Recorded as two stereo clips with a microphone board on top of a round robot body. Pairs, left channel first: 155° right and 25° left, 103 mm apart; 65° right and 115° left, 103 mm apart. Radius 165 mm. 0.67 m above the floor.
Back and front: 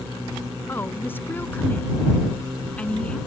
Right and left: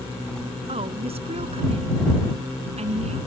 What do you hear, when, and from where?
0.7 s a woman speaking: 135° left; by 3.2 s 125° left